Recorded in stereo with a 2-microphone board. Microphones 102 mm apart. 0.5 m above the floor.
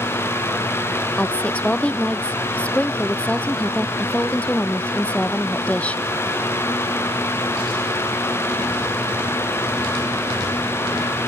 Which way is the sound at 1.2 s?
10° left (ahead or behind).